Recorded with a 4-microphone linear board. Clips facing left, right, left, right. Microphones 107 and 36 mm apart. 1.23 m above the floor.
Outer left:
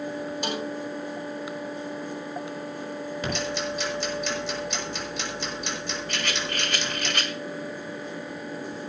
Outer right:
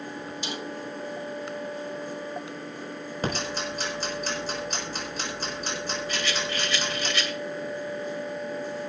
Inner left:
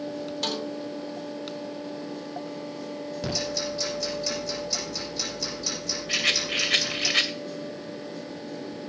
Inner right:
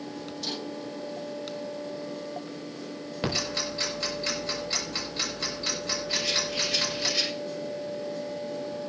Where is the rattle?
55° left (ahead or behind), 1.9 m.